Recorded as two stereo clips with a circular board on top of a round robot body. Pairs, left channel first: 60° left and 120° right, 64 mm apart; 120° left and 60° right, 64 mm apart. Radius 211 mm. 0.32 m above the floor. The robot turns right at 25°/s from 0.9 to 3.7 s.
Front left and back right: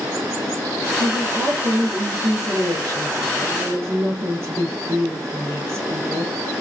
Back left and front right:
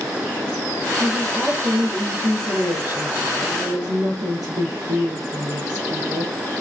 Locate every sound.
1.0 s a woman speaking: 140° right, 9.5 m; by 6.3 s 75° right, 9.5 m